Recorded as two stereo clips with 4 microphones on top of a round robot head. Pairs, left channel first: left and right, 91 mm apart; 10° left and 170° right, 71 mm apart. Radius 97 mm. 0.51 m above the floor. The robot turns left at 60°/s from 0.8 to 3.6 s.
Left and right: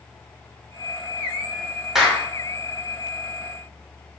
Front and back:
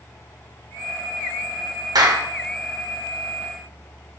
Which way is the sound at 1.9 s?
175° right.